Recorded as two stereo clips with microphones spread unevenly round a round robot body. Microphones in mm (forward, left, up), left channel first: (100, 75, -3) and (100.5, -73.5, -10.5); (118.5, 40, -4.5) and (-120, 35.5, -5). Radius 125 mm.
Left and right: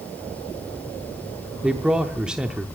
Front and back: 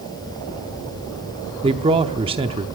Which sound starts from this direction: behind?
A man speaking, at 1.6 s.